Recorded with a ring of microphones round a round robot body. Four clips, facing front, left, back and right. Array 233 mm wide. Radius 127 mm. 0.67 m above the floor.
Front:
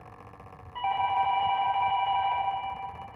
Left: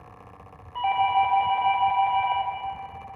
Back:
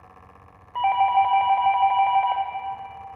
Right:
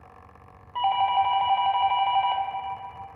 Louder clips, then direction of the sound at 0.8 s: Even, back 8 dB; 160° right.